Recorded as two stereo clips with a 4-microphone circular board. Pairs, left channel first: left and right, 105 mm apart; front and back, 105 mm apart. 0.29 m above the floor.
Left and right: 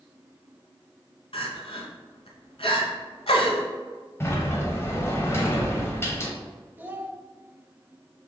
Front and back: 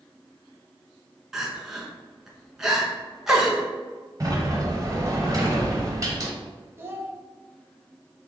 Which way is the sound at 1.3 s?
95° left.